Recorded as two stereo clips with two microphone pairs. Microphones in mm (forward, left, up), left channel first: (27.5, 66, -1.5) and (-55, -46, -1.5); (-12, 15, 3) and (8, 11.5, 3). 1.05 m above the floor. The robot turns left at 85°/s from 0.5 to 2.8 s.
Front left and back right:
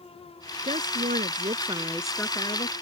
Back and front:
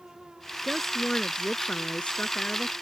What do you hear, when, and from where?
0.6 s a woman speaking: 95° right; by 2.7 s 90° left